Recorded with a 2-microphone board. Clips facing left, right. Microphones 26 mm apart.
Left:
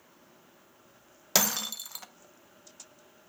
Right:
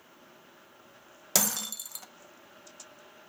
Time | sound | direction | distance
1.4 | breaking glass | 20° left (ahead or behind) | 0.6 m